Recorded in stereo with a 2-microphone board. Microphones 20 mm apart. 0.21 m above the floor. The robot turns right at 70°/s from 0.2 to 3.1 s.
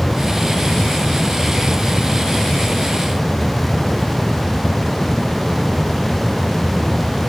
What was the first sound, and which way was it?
Only background noise.